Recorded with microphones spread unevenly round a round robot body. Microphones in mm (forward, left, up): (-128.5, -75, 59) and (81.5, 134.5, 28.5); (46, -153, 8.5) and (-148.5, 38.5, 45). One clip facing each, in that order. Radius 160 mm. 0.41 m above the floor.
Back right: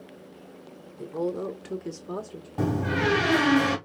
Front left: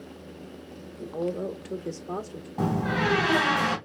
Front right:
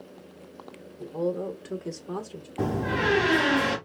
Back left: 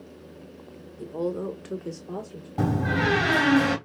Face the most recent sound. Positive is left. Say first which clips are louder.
# back right 1 dB, back left 2 dB
turn(degrees=180)